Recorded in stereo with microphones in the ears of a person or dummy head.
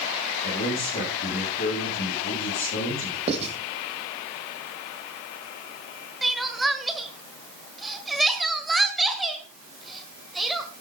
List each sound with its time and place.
0.4 s a man speaking: 50° left (ahead or behind), 7 m
3.3 s writing: 35° right (ahead or behind), 2.5 m
6.2 s crying: 5° left (ahead or behind), 1.6 m